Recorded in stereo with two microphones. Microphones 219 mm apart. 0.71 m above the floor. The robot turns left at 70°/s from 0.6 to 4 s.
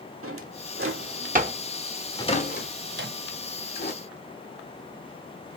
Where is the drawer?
85° right, 0.9 m; by 3.9 s 40° left (ahead or behind), 0.9 m.